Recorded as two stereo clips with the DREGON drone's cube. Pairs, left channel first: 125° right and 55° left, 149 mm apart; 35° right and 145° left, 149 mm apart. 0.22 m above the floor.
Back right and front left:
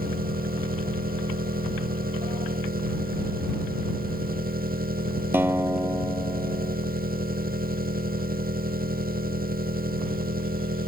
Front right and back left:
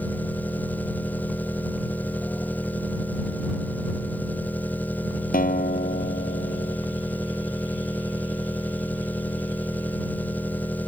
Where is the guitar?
20° right.